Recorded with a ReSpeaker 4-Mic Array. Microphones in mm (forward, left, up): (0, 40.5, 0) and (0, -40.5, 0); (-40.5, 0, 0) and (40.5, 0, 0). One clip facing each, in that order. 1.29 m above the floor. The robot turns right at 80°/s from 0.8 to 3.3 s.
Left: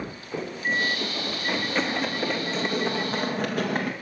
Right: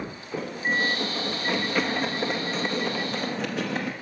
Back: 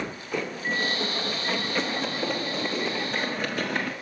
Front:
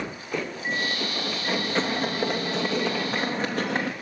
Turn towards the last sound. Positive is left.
turn(degrees=55)